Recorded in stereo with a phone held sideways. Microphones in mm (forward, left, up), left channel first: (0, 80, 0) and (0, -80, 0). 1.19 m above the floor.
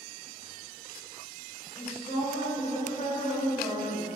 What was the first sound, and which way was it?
A woman speaking, 40° left (ahead or behind).